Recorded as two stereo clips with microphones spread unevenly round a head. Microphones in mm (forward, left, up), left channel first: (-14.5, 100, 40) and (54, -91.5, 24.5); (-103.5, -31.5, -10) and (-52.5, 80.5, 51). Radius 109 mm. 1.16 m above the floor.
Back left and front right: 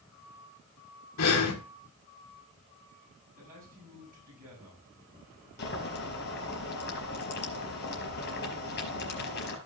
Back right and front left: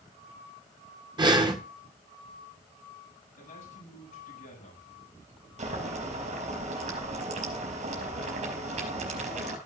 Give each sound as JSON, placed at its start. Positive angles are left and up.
{"t": 1.2, "sound": "breathing", "azimuth_deg": 110, "distance_m": 1.8}
{"t": 3.4, "sound": "a man speaking", "azimuth_deg": -125, "distance_m": 7.5}
{"t": 5.6, "sound": "boiling", "azimuth_deg": 70, "distance_m": 4.5}